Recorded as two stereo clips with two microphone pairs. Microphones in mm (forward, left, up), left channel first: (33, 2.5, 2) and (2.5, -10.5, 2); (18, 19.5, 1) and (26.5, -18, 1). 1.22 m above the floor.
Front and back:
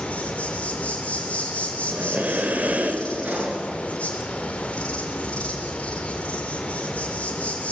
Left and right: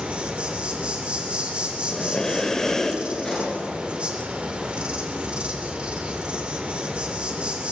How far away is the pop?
About 7 m.